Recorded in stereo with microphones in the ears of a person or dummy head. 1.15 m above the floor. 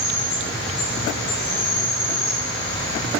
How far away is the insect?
About 2 m.